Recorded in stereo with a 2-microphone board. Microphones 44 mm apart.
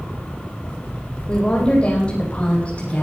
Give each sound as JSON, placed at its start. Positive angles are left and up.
{"t": 1.3, "sound": "a woman speaking", "side_deg": 20, "distance_m": 5.5}